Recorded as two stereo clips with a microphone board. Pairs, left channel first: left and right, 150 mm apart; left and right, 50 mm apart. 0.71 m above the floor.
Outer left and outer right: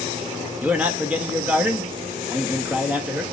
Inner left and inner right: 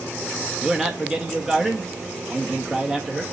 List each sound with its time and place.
0.6 s a man speaking: 10° right (ahead or behind), 0.9 m